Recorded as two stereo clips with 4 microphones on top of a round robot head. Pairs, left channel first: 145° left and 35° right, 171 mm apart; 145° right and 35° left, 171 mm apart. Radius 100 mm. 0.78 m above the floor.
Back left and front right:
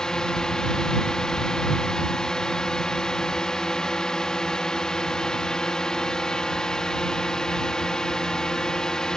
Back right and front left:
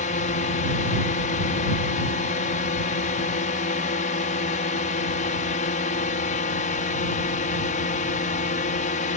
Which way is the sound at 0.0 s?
130° right.